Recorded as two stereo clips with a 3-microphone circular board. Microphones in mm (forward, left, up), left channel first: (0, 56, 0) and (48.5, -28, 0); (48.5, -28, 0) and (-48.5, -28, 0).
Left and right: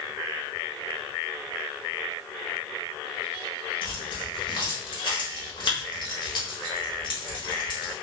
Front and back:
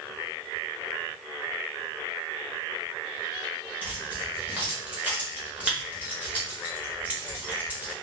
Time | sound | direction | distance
3.8 | keys jangling | 110° left | 0.9 m